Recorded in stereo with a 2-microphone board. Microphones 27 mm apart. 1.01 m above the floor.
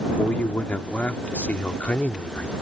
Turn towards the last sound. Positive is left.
turn(degrees=65)  # may be behind; listen again after turning